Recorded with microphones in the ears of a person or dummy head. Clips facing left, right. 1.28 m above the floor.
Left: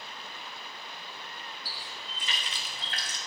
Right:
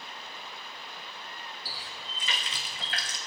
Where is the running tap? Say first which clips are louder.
Even; 65° right (ahead or behind), 0.6 m.